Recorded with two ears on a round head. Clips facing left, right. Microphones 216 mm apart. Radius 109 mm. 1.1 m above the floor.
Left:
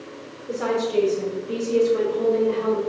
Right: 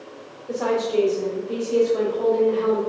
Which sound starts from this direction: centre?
A woman speaking, at 0.5 s.